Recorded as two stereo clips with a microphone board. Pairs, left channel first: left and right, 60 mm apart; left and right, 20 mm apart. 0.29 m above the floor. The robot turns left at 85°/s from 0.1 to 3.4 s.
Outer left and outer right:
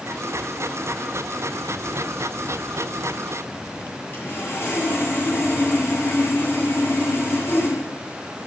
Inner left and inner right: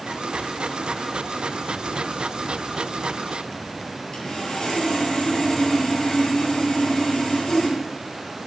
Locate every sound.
4.1 s sawing: 35° left (ahead or behind), 7.5 m